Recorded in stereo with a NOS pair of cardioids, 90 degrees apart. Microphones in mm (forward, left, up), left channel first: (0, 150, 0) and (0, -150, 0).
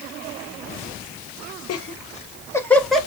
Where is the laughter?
55° left, 0.8 m; by 3.1 s straight ahead, 2 m.